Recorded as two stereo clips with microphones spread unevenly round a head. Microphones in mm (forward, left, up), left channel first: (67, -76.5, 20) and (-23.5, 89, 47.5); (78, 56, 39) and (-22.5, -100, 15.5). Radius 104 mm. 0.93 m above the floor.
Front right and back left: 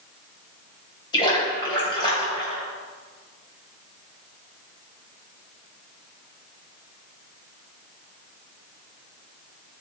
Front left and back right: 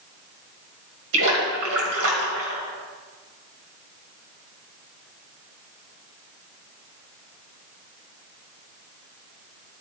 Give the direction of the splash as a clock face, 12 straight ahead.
4 o'clock.